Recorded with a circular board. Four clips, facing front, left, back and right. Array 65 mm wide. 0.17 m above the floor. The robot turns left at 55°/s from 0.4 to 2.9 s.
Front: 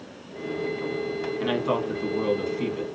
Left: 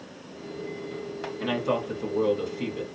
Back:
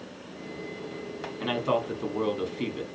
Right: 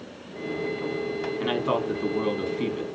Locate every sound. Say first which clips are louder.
1.4 s a man speaking: right 1 dB, front 1 dB; 70° right, 1.1 m; by 2.9 s 150° right, 1.1 m